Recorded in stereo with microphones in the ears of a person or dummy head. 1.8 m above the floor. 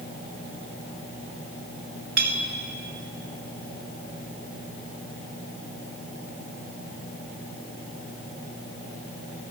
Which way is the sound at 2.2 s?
55° right (ahead or behind).